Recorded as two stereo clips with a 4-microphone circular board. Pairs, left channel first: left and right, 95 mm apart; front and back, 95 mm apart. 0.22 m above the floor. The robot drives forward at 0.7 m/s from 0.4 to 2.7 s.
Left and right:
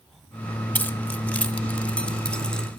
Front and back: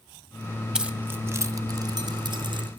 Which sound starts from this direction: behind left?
Keys jangling, at 0.8 s.